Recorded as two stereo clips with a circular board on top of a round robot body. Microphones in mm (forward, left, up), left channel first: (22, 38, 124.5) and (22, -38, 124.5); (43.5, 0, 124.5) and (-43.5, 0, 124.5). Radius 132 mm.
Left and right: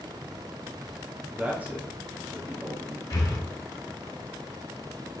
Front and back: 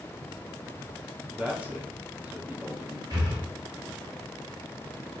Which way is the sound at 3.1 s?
130° left.